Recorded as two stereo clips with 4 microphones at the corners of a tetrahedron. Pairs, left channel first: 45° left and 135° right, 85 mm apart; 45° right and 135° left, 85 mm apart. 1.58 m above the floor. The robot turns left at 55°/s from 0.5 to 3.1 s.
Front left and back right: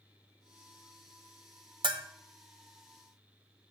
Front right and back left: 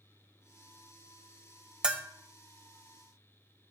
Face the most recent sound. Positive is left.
turn(degrees=145)